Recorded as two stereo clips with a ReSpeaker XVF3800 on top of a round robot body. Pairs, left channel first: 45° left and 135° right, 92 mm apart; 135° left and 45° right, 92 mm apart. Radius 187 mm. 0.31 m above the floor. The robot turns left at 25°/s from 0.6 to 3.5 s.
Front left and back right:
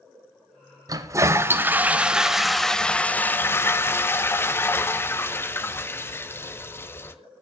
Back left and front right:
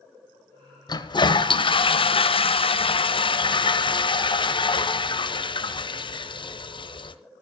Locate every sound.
0.9 s a toilet flushing: 175° left, 1.3 m; by 7.2 s 110° left, 1.3 m